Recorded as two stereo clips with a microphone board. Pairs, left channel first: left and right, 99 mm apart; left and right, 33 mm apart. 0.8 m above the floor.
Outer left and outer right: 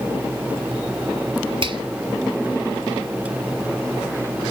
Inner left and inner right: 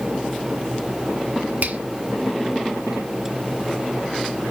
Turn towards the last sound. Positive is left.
turn(degrees=-55)  # may be behind; listen again after turning